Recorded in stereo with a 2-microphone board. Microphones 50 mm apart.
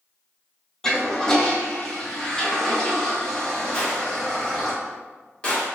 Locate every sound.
0.8 s a toilet flushing: 10° left (ahead or behind), 0.7 m
3.7 s a gunshot: 20° left (ahead or behind), 1.3 m